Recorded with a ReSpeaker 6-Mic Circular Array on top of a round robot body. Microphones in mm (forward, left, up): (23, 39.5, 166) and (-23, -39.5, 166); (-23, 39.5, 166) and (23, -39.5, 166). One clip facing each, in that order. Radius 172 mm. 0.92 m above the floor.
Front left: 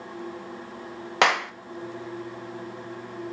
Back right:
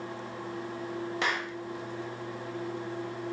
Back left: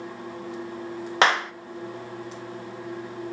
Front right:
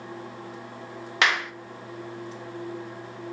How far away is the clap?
About 1.3 m.